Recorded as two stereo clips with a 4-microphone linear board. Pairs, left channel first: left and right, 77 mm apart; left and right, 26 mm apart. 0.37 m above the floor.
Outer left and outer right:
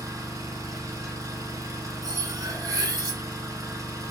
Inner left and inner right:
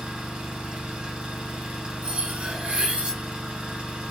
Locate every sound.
0.0 s an engine running: 45° right (ahead or behind), 0.9 m
2.0 s cutlery clinking: 55° right (ahead or behind), 0.9 m